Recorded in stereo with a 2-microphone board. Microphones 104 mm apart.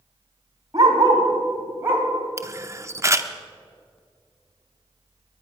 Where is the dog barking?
40° right (ahead or behind), 3 m; by 2.1 s 15° right (ahead or behind), 2.5 m.